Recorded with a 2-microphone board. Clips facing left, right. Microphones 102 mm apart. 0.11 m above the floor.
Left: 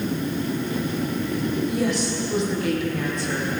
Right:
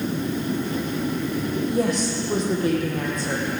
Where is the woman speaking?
40° right (ahead or behind), 4 m.